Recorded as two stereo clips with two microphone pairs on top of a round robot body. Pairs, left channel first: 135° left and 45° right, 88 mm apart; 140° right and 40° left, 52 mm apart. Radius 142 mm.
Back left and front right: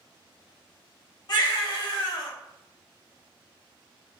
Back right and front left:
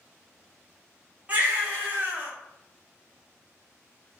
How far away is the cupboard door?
No cupboard door in this recording.